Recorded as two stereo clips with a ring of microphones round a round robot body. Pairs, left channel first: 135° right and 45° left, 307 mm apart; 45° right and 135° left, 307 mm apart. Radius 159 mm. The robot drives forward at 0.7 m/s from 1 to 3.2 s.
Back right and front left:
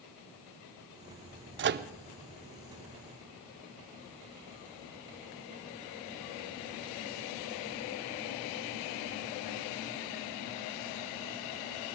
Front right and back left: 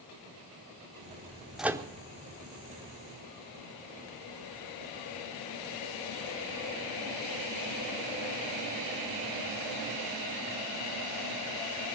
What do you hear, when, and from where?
1.6 s a microwave: 45° left, 0.6 m; by 1.9 s 80° left, 0.5 m